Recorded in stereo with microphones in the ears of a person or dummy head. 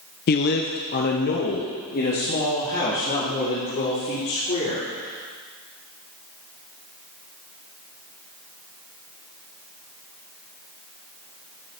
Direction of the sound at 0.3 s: 45° left (ahead or behind).